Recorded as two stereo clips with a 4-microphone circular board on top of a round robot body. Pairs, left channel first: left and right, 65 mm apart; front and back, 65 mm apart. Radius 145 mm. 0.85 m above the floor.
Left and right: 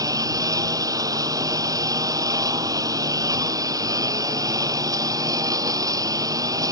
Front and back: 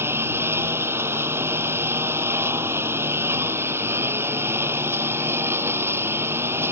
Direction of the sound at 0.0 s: 125° right.